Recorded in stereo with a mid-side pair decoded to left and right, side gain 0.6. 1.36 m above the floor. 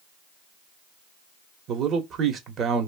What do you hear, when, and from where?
1.7 s a man speaking: 50° right, 1.0 m